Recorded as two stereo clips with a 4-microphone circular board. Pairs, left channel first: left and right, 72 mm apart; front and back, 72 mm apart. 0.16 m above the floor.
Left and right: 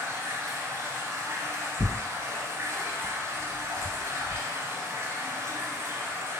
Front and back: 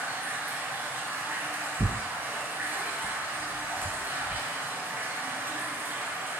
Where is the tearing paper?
70° left, 0.6 m.